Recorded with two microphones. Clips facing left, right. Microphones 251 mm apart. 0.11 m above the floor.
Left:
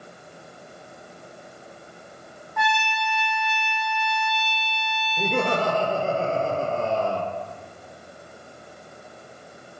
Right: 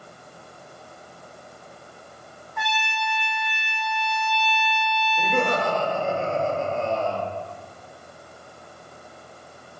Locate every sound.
2.6 s a trumpet: 35° right (ahead or behind), 2.5 m
5.2 s laughter: 35° left (ahead or behind), 2 m